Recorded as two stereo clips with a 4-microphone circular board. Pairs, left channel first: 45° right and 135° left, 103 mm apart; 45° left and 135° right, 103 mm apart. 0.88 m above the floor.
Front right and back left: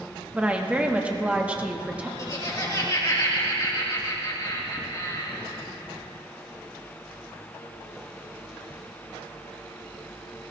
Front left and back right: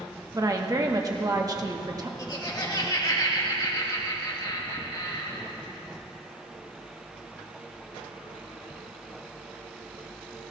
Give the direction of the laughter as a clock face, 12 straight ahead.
12 o'clock.